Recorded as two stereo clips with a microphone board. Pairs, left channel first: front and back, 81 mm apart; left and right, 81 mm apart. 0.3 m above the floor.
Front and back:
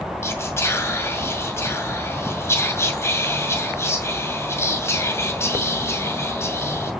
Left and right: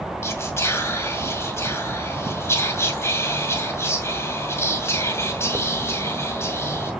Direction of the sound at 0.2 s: 45° left.